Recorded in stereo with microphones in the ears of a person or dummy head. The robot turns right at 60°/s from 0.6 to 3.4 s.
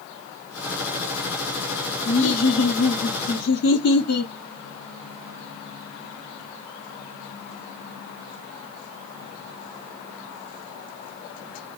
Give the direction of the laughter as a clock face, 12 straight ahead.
11 o'clock.